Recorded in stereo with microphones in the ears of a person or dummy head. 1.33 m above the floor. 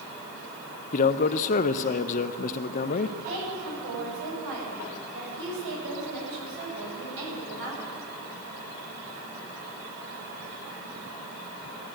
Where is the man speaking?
45° left (ahead or behind), 0.7 m.